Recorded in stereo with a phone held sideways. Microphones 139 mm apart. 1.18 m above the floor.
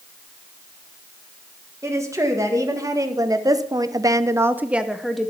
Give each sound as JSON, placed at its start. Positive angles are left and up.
{"t": 1.8, "sound": "a woman speaking", "side_deg": -20, "distance_m": 1.8}